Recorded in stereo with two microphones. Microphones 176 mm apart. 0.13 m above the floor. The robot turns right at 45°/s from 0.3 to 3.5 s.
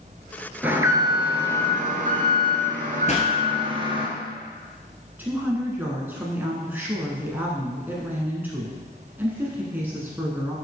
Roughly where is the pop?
Left.